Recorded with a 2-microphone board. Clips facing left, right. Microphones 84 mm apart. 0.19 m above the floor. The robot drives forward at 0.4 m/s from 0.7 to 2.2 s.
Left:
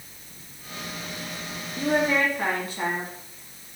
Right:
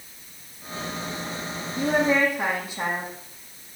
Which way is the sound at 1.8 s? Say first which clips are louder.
Right 2 dB; 10° right (ahead or behind).